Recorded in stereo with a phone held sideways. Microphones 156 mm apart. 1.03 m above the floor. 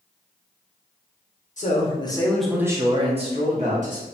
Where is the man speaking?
50° left (ahead or behind), 0.7 m; by 4.0 s 55° right (ahead or behind), 1.2 m.